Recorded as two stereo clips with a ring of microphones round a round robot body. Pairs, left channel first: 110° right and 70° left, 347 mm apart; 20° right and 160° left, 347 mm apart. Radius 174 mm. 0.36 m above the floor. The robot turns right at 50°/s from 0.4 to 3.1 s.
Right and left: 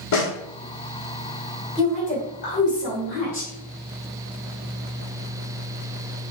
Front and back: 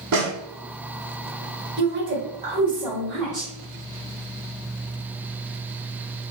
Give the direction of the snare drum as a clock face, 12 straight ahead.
5 o'clock.